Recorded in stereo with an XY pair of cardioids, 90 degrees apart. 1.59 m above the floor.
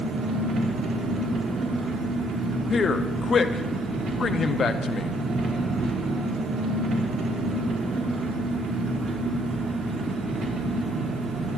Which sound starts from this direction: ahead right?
An engine running, at 0.0 s.